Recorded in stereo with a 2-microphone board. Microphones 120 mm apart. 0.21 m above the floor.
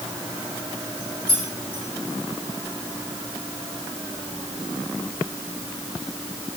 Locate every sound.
1.3 s keys jangling: 50° left (ahead or behind), 8.5 m